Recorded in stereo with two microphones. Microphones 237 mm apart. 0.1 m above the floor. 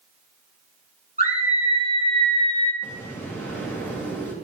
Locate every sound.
1.2 s a scream: 35° left (ahead or behind), 3.5 m; by 2.7 s 60° left (ahead or behind), 4 m
2.8 s an explosion: 10° left (ahead or behind), 7 m